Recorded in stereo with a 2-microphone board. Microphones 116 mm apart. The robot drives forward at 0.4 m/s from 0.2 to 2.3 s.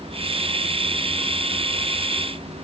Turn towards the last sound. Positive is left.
No sound to turn to.